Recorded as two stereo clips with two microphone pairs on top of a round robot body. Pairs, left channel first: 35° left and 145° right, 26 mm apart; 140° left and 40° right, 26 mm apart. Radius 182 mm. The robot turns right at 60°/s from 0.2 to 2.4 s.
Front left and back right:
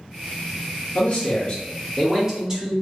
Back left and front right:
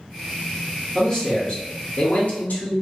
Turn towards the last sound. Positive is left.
turn(degrees=145)